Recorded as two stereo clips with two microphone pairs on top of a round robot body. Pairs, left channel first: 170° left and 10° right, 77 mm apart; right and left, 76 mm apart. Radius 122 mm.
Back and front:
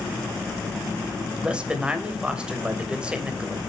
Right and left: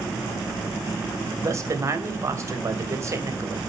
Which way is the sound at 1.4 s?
65° left.